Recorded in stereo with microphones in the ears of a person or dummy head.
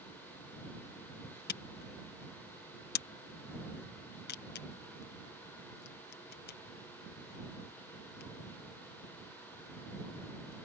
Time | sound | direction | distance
1.5 | a camera shutter | 50° left (ahead or behind) | ?